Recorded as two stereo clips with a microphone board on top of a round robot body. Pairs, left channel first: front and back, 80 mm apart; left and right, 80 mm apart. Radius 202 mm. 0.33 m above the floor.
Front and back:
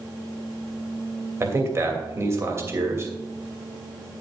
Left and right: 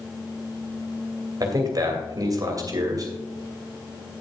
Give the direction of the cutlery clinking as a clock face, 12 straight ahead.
No cutlery clinking in this recording.